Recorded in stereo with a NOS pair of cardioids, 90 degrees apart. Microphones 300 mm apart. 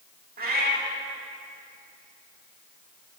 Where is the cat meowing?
30° right, 1.8 m.